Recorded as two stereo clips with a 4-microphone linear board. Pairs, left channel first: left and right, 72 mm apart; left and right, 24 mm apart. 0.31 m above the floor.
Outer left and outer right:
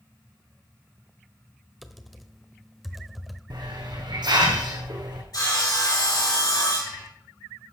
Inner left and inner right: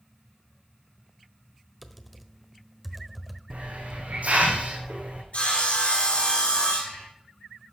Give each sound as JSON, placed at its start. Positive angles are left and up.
{"t": 1.8, "sound": "typing on a keyboard", "side_deg": 0, "distance_m": 1.1}
{"t": 3.5, "sound": "a hiss", "side_deg": -80, "distance_m": 3.5}
{"t": 5.3, "sound": "sawing", "side_deg": 60, "distance_m": 5.0}